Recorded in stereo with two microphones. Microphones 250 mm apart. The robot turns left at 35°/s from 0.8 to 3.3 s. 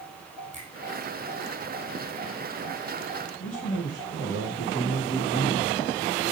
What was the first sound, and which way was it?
A finger snap, 30° right (ahead or behind).